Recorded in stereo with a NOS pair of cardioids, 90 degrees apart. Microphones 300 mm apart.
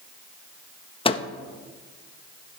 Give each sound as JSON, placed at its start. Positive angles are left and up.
{"t": 1.1, "sound": "a microwave", "azimuth_deg": 20, "distance_m": 0.7}